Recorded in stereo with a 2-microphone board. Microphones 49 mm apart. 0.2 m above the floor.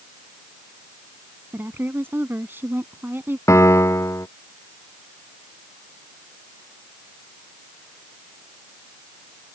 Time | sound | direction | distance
1.5 | a woman speaking | 50° right (ahead or behind) | ?
3.5 | a piano | 80° left | ?